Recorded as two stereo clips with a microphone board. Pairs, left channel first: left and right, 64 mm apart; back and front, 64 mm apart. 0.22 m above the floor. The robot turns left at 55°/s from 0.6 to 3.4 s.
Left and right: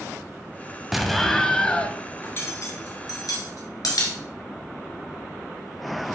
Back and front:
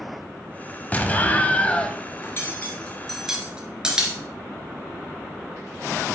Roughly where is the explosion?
Behind.